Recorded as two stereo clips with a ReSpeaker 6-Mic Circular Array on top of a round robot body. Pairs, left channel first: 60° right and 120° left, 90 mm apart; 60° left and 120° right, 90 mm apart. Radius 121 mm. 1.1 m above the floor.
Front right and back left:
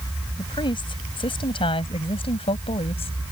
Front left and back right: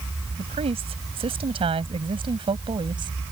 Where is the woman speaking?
100° right; by 3.2 s 80° right.